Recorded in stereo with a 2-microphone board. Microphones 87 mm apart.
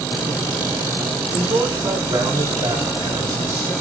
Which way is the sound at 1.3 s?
40° right (ahead or behind).